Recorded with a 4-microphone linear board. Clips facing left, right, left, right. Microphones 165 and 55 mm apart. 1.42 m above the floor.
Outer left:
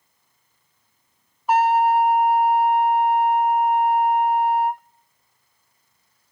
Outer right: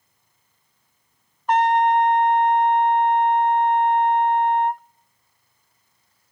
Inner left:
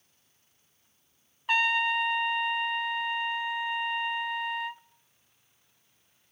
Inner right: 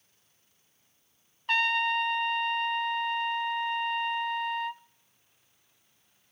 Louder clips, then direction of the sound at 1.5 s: Even, inner left 1 dB; 5° left (ahead or behind).